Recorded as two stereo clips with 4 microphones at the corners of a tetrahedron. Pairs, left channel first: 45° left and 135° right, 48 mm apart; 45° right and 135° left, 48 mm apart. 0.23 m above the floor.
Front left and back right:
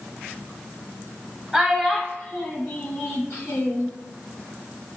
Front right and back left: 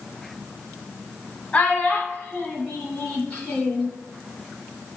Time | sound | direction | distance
1.5 | a child speaking | 60° right | 1.2 m